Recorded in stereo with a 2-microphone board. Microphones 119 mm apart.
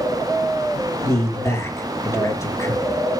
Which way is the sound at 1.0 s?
25° left (ahead or behind).